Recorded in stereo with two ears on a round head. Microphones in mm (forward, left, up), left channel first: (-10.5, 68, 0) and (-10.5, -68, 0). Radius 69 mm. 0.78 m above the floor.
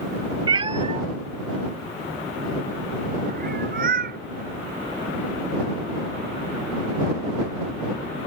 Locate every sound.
0.5 s a cat meowing: 30° right (ahead or behind); by 4.2 s 60° right (ahead or behind)